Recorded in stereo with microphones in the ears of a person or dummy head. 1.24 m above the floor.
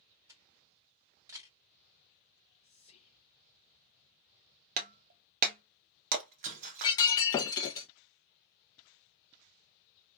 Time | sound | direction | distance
0.3 | a camera shutter | 20° right (ahead or behind) | 1.2 m
2.6 | whispering | 35° left (ahead or behind) | 0.5 m
4.8 | breaking glass | 45° right (ahead or behind) | 0.5 m
6.8 | breaking glass | 15° left (ahead or behind) | 0.6 m